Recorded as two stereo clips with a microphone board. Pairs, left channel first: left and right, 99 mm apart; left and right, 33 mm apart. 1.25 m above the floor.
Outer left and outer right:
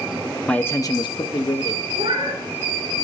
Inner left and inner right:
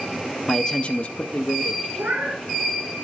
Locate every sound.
0.5 s a man speaking: 10° left (ahead or behind), 0.5 m; by 1.9 s 60° left (ahead or behind), 1.0 m
1.9 s a cat meowing: 65° right (ahead or behind), 2.5 m